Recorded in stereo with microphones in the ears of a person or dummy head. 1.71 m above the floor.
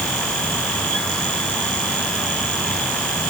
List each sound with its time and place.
Only background noise.